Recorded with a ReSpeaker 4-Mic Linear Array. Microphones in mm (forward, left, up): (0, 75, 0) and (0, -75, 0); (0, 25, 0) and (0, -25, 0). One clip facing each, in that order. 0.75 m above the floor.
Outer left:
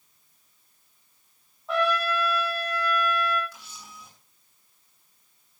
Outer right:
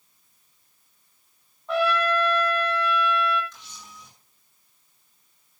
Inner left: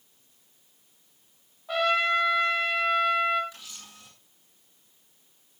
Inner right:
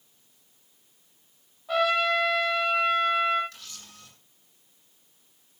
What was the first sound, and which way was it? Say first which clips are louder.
A trumpet: outer right 2 dB, inner right 1 dB; centre (ahead or behind).